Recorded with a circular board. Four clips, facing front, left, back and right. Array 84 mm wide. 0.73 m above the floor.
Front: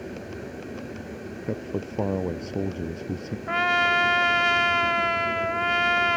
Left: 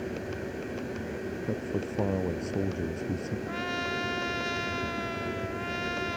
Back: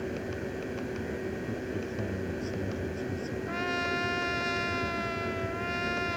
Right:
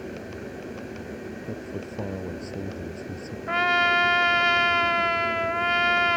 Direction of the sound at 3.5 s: 45° right.